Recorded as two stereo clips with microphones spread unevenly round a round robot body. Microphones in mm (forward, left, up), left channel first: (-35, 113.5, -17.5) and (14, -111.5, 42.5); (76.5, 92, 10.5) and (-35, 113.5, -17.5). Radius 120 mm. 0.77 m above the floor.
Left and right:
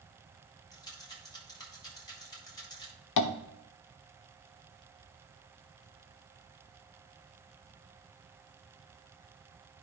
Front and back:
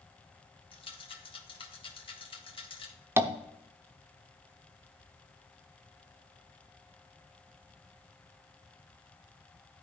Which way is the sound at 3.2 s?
95° left.